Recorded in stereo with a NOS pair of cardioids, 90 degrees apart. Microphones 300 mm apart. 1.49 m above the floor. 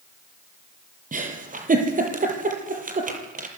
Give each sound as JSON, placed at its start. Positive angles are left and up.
{"t": 1.1, "sound": "a giggle", "azimuth_deg": -30, "distance_m": 7.0}